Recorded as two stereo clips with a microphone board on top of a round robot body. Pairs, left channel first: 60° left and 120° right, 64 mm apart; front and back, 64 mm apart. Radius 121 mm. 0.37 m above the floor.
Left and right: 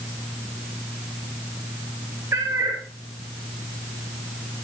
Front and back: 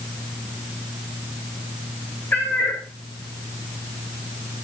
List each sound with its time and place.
2.3 s a cat meowing: 65° right, 5 m